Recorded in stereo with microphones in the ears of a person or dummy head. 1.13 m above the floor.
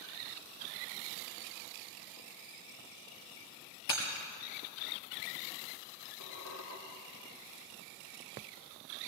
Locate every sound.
3.9 s breaking glass: 65° left (ahead or behind), 4 m
6.2 s a squeak: 75° left (ahead or behind), 3 m